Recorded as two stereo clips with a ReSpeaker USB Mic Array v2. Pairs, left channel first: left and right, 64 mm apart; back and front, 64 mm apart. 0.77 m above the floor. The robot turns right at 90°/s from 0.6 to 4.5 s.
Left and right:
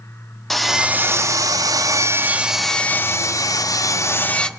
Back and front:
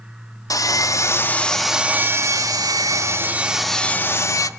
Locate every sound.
0.5 s sawing: 175° left, 0.9 m; by 4.5 s 165° left, 0.9 m